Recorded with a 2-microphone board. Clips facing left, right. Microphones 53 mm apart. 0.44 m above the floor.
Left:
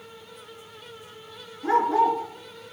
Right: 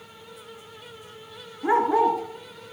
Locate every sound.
1.6 s a dog barking: 20° right (ahead or behind), 2.5 m; by 2.7 s 35° right (ahead or behind), 3 m